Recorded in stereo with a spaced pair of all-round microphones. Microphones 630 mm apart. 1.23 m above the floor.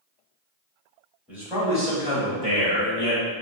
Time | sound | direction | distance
1.3 | a man speaking | centre (ahead or behind) | 2.0 m